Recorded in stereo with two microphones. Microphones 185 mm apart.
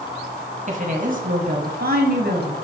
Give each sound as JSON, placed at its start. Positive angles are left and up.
{"t": 0.7, "sound": "a woman speaking", "side_deg": -40, "distance_m": 2.0}